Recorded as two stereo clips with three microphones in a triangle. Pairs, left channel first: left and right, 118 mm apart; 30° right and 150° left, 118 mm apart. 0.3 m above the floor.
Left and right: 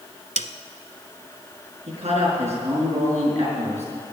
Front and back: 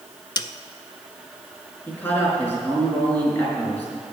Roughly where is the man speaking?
Right.